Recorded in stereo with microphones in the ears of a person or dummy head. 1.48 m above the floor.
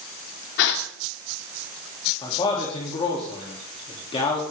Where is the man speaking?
35° left (ahead or behind), 3 m.